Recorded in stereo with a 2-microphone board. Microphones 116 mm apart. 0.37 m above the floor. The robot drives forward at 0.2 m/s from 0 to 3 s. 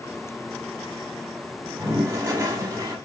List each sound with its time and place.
1.6 s a toilet flushing: 25° right (ahead or behind), 0.9 m